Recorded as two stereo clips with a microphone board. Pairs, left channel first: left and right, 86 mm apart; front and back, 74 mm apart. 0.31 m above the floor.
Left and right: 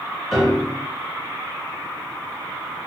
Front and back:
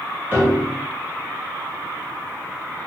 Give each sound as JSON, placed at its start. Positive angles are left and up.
{"t": 0.3, "sound": "a piano", "azimuth_deg": -175, "distance_m": 1.0}